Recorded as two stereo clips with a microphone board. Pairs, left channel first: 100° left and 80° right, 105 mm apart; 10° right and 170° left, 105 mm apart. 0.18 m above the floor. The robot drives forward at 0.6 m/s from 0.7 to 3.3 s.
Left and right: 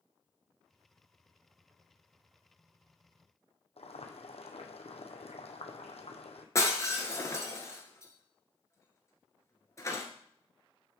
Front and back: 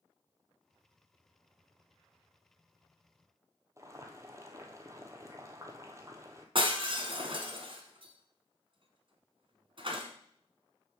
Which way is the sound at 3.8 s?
110° left.